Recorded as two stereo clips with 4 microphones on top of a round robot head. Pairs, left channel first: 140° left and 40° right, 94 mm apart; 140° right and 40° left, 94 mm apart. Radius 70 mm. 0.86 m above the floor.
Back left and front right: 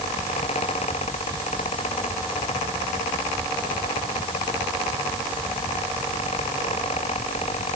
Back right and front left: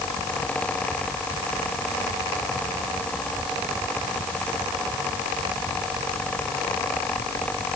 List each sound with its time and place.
Only background noise.